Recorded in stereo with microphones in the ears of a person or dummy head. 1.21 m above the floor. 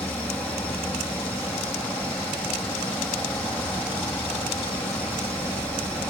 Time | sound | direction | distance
0.0 | an insect | 5° left (ahead or behind) | ?